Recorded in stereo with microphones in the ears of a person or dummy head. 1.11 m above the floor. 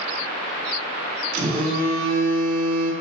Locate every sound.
1.3 s a phone buzzing: 50° right (ahead or behind), 2 m